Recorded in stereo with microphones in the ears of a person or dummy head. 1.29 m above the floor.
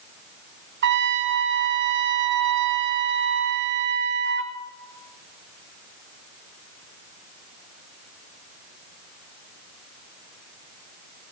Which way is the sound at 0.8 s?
60° right (ahead or behind).